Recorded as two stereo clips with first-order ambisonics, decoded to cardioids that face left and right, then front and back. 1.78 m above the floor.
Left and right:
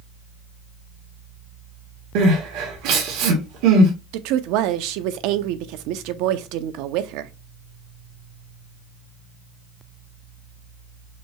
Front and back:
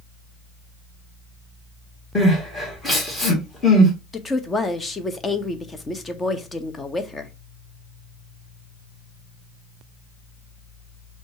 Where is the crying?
80° right, 1.5 m.